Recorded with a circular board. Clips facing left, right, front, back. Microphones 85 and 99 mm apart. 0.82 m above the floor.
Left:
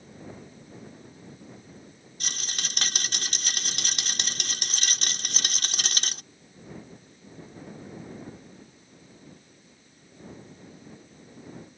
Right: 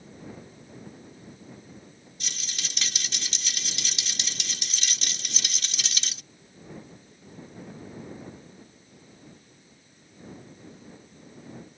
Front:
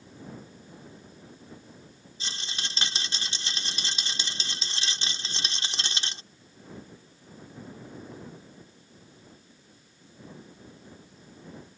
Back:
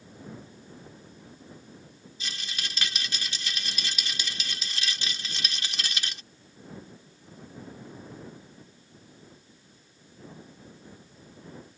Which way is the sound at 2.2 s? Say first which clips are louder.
Left 3 dB, even; 55° left.